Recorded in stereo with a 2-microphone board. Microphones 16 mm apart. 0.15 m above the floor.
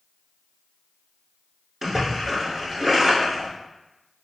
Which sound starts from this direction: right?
A splash, at 1.8 s.